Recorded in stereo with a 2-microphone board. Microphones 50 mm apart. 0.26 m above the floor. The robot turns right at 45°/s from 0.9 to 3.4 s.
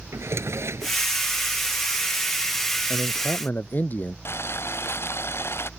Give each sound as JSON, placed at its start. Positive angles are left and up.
{"t": 0.1, "sound": "a drawer", "side_deg": -75}
{"t": 2.9, "sound": "a man speaking", "side_deg": 60}
{"t": 4.2, "sound": "boiling", "side_deg": 60}